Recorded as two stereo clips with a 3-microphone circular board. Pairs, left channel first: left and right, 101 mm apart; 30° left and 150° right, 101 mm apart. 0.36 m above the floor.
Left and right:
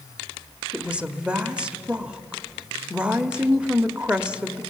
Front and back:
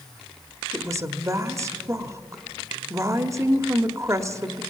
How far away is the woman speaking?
About 0.9 m.